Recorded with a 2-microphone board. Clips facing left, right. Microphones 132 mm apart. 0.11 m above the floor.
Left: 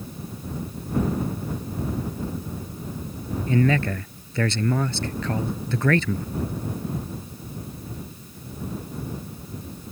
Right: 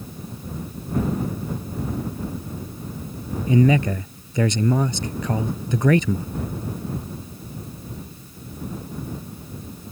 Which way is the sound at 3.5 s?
15° right (ahead or behind).